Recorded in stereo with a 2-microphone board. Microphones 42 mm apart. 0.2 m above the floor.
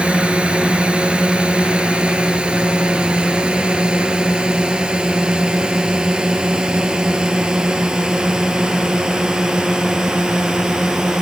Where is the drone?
25° right (ahead or behind); by 11.2 s 10° right (ahead or behind).